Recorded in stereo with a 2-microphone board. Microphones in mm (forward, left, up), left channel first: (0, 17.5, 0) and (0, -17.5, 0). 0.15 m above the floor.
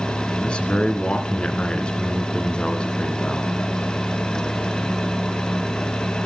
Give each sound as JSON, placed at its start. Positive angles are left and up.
{"t": 0.4, "sound": "a man speaking", "side_deg": 30, "distance_m": 2.0}